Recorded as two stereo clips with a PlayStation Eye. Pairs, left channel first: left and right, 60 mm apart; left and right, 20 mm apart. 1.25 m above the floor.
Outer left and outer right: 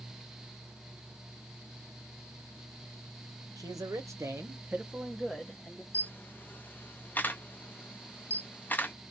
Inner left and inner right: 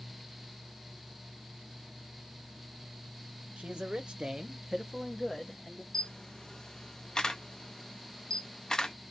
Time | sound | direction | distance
3.6 | a man speaking | 75° right (ahead or behind) | 0.8 m
5.9 | a camera shutter | 30° left (ahead or behind) | 0.6 m